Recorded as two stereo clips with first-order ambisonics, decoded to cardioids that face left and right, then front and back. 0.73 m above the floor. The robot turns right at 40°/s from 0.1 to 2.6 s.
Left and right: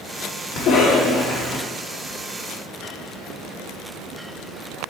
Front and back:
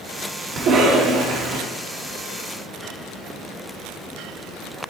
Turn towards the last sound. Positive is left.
turn(degrees=-150)